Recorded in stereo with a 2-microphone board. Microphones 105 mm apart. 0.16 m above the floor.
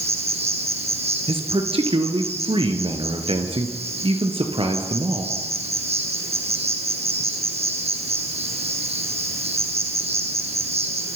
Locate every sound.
0.0 s an insect: 75° right (ahead or behind), 3.5 m
1.3 s a man speaking: 60° right (ahead or behind), 3 m